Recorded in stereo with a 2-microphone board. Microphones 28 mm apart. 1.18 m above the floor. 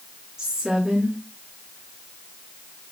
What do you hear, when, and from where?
0.4 s a woman speaking: 20° right (ahead or behind), 2.5 m